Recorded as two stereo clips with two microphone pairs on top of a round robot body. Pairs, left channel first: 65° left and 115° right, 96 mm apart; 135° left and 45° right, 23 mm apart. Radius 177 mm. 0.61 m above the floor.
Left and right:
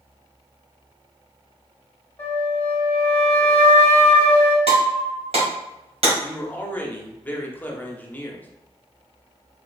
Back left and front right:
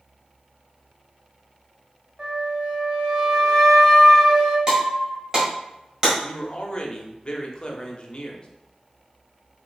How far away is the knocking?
I don't hear knocking.